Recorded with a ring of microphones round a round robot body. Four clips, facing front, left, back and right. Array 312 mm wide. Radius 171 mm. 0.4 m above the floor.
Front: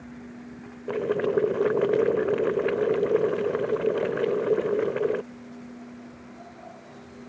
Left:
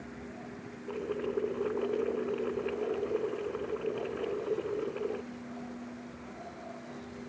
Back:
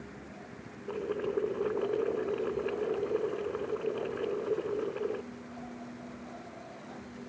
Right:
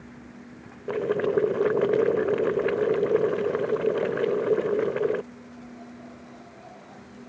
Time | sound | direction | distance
0.9 | boiling | 45° right | ?